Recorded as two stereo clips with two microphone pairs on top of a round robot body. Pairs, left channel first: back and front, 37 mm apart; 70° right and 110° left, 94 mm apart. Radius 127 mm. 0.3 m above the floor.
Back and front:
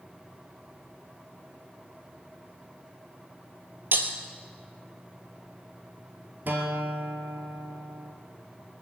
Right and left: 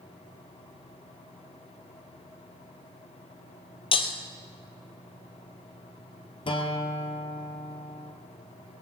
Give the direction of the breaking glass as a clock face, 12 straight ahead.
1 o'clock.